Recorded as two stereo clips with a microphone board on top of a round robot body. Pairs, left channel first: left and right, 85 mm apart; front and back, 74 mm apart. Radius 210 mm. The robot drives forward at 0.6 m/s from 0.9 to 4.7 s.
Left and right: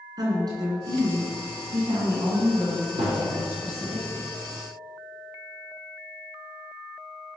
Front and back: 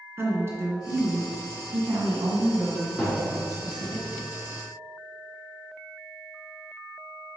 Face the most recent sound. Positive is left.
turn(degrees=-135)